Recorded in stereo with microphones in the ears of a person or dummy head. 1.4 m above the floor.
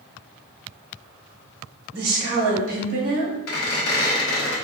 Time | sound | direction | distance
1.9 | a woman speaking | 40° right (ahead or behind) | 1.0 m
3.5 | a squeak | 70° left (ahead or behind) | 0.8 m